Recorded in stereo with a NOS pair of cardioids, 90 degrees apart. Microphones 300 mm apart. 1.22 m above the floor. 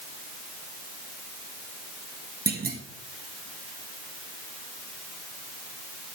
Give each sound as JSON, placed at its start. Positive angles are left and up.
{"t": 2.5, "sound": "a clunk", "azimuth_deg": -30, "distance_m": 1.7}